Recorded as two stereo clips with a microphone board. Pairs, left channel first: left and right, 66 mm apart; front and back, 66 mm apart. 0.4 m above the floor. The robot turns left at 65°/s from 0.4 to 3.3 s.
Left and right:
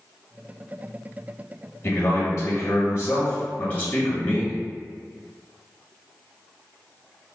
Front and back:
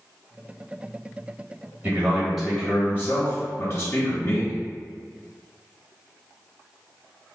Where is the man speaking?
130° left, 1.7 m; by 4.6 s 35° left, 1.7 m.